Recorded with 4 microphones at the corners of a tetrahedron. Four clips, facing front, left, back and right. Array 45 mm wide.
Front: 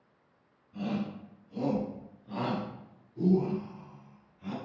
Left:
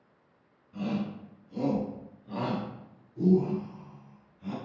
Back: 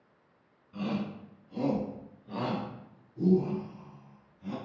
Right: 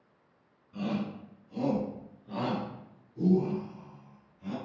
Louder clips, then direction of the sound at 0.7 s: Left 1 dB, even; 175° right.